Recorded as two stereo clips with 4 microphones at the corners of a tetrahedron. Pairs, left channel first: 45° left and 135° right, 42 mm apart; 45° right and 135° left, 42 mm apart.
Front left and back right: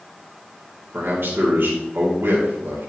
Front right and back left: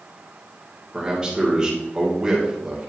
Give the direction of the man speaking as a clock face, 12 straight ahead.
5 o'clock.